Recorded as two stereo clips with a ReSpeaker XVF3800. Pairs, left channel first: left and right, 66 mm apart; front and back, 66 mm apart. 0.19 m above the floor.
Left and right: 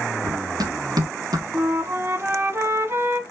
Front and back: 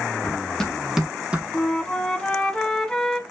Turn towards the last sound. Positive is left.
turn(degrees=-75)